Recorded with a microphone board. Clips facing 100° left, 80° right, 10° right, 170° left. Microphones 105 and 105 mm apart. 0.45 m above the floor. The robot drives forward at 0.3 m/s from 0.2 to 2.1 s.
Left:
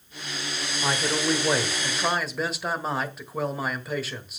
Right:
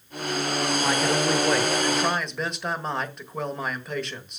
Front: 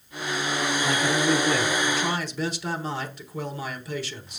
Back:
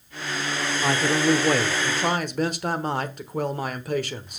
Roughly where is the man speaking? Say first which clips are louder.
Even, back 4 dB; behind.